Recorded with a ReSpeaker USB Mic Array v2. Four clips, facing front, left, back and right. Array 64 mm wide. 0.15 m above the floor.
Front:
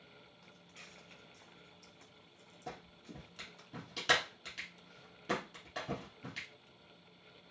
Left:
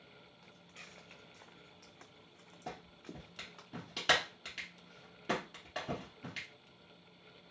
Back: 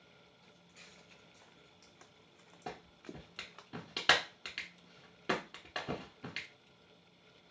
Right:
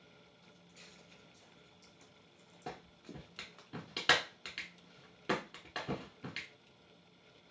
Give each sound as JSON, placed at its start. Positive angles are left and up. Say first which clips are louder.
{"t": 0.4, "sound": "footsteps", "louder": "left 5 dB, front 2 dB", "azimuth_deg": 60, "distance_m": 1.1}
{"t": 2.7, "sound": "a clap", "louder": "even, back 2 dB", "azimuth_deg": -160, "distance_m": 1.1}